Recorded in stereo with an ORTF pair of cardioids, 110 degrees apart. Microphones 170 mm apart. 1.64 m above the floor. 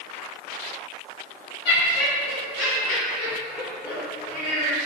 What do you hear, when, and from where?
1.6 s laughter: 70° left, 1.6 m